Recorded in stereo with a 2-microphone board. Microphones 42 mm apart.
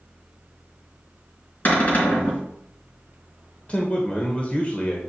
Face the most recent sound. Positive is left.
turn(degrees=30)  # may be behind; listen again after turning